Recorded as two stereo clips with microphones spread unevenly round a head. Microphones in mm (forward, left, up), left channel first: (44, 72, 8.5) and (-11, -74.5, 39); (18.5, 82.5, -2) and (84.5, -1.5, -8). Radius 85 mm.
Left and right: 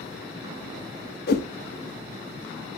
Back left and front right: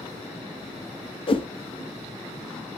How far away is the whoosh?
About 1.3 m.